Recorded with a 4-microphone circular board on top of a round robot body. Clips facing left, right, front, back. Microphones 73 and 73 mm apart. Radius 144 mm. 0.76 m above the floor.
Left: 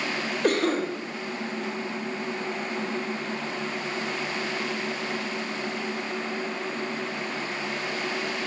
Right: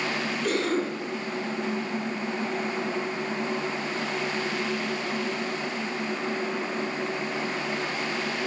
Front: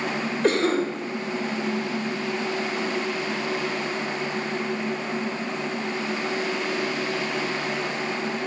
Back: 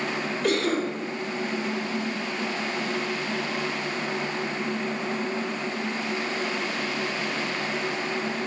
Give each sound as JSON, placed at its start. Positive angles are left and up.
{"t": 0.4, "sound": "a cough", "azimuth_deg": 55, "distance_m": 0.8}